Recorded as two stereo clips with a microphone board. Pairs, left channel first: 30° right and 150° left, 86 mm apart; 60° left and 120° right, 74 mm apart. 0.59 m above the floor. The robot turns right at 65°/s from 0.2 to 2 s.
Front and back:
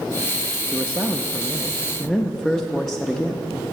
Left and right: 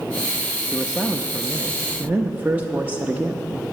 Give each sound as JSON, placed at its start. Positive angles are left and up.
{"t": 0.7, "sound": "a man speaking", "azimuth_deg": 170, "distance_m": 0.6}